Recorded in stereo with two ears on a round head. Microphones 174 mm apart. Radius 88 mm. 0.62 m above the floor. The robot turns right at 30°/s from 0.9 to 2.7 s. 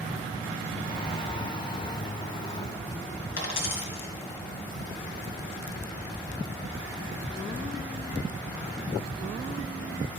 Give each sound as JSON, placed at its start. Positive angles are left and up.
{"t": 3.4, "sound": "a dropped coin", "side_deg": 65, "distance_m": 2.0}